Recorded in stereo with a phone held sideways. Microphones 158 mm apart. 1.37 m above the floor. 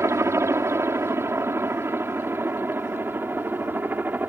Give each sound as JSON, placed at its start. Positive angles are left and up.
{"t": 0.0, "sound": "a helicopter", "side_deg": -15}